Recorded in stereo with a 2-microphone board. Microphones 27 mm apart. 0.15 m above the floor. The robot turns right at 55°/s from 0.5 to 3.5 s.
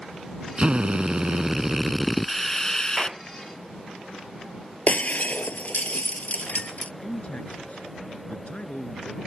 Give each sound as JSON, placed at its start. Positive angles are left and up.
{"t": 0.6, "sound": "a drill", "azimuth_deg": -85}
{"t": 3.0, "sound": "a clap", "side_deg": -25}
{"t": 4.9, "sound": "breaking glass", "side_deg": 60}
{"t": 7.0, "sound": "a man speaking", "side_deg": 50}